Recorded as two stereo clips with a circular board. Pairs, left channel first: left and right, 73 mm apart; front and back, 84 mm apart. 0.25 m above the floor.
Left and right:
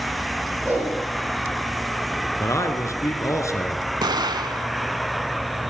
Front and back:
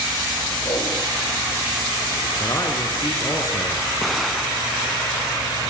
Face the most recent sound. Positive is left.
turn(degrees=-90)